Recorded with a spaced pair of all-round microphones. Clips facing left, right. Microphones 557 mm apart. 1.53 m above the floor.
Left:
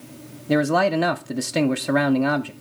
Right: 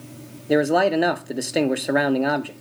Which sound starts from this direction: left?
A man speaking, at 0.5 s.